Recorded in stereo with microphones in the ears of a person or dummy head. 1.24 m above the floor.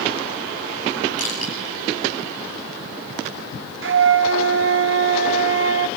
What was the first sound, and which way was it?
Crushing, 35° right (ahead or behind).